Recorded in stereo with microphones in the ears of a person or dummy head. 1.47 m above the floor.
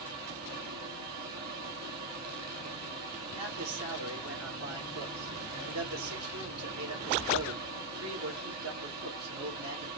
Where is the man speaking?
85° right, 2.0 m.